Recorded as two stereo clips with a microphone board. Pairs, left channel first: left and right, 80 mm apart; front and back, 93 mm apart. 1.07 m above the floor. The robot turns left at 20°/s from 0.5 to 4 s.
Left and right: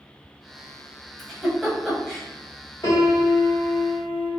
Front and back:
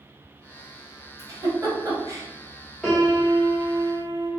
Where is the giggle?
Straight behind, 1.0 m; by 2.2 s 160° left, 1.0 m.